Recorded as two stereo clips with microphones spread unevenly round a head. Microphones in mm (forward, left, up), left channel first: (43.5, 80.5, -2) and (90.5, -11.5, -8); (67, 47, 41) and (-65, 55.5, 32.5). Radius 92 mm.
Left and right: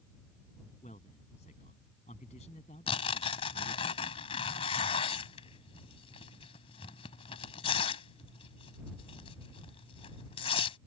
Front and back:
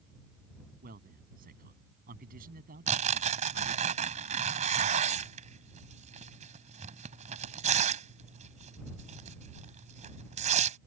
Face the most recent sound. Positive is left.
turn(degrees=150)